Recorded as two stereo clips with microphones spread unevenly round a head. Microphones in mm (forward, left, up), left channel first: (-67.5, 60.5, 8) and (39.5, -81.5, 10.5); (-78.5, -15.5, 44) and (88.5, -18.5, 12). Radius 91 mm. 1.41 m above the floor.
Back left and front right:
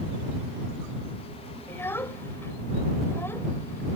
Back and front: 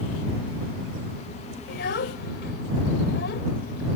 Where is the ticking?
No ticking in this recording.